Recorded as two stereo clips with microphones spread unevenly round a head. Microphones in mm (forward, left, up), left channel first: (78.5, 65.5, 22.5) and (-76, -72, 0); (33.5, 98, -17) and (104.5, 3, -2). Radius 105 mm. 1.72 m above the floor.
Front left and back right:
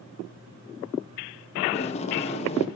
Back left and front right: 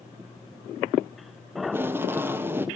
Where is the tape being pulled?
5° left, 0.5 m.